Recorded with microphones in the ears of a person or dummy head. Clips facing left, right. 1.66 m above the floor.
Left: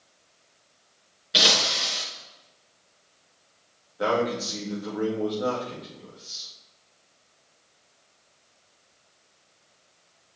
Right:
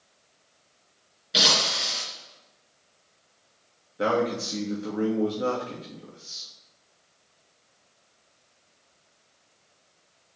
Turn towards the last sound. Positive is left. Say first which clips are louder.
# even
turn(degrees=-35)  # may be behind; listen again after turning